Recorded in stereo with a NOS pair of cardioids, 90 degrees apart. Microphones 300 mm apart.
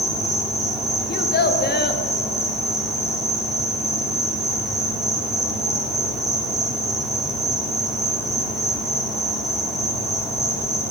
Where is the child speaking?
35° left, 1.3 m.